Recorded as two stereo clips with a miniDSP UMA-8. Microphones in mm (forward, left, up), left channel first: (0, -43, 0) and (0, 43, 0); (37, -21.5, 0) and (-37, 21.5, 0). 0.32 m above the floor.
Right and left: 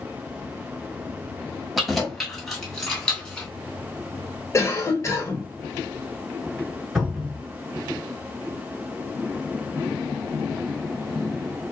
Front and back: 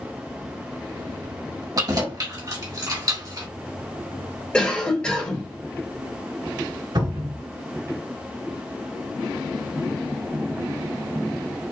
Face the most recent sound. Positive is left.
turn(degrees=175)